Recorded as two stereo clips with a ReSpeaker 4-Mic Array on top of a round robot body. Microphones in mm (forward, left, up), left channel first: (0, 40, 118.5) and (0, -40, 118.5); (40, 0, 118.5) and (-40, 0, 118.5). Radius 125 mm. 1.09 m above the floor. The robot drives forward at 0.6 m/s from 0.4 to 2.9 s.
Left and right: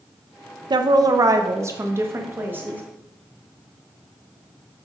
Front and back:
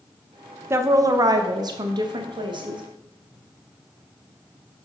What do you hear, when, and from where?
0.7 s a woman speaking: 120° right, 0.8 m; by 2.8 s 160° right, 1.8 m